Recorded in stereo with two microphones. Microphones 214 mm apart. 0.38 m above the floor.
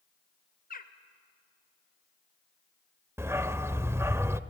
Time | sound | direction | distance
0.7 | a bird | 40° left (ahead or behind) | 1.1 m
3.2 | a dog barking | 10° right (ahead or behind) | 0.5 m